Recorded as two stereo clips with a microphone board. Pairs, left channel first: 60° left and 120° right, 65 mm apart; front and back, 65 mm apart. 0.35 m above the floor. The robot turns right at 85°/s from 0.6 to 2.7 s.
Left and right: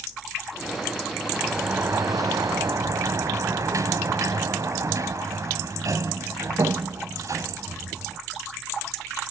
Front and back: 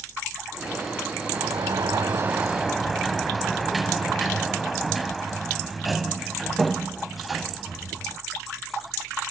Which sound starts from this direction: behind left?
A sliding door, at 1.3 s.